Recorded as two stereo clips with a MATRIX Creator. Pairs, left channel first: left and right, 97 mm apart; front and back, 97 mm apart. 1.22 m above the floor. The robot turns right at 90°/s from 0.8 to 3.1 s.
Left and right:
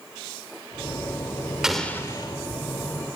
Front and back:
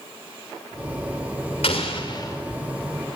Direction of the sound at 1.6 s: 5° right.